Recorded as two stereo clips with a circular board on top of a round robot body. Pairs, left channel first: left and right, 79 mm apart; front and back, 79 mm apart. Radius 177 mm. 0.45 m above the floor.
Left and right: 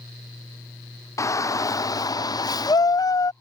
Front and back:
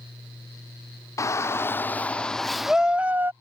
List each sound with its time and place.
1.2 s a shout: 45° left; by 3.3 s 120° left